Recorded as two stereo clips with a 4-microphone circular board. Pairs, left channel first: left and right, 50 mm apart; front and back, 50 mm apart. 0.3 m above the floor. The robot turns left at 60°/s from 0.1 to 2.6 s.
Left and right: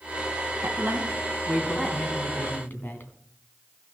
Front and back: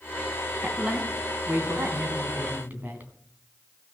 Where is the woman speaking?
110° right, 2.5 m; by 3.1 s 130° left, 2.5 m.